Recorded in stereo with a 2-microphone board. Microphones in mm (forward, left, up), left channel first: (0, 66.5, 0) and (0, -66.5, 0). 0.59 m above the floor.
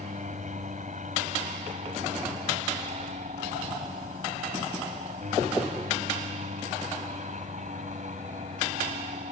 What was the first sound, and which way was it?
An aircraft, 65° right (ahead or behind).